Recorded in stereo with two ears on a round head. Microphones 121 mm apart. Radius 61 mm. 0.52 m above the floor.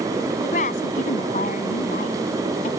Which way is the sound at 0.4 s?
60° left (ahead or behind).